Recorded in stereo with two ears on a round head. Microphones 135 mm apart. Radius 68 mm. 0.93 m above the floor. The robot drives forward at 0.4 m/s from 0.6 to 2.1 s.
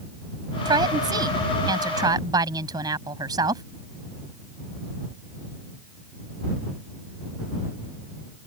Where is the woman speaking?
30° right (ahead or behind).